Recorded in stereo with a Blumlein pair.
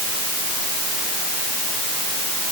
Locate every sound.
Only background noise.